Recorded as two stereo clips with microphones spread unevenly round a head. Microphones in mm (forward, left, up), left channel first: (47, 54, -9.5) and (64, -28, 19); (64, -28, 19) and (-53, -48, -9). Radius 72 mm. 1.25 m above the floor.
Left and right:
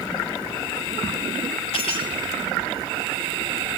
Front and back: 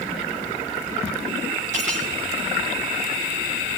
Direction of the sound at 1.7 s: 145° left.